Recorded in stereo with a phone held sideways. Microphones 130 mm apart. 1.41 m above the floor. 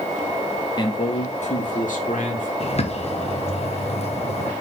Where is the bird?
50° left (ahead or behind), 1.2 m.